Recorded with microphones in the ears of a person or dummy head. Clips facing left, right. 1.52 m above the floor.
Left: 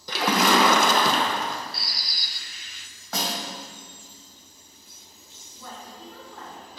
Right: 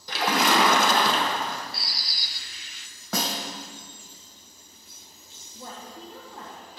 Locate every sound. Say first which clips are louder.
0.1 s a splash: left 2 dB; 80° left, 1.1 m
1.7 s a bird: left 1 dB; 45° left (ahead or behind), 0.5 m
3.1 s a snare drum: right 1 dB; 70° right (ahead or behind), 1.3 m
5.5 s a woman speaking: right 1 dB; 30° right (ahead or behind), 1.5 m